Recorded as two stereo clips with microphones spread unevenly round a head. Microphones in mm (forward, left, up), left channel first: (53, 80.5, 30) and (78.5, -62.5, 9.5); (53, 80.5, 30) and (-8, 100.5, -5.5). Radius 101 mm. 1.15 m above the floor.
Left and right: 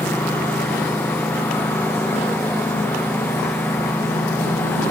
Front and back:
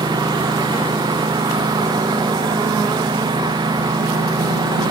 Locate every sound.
0.0 s a lawn mower: straight behind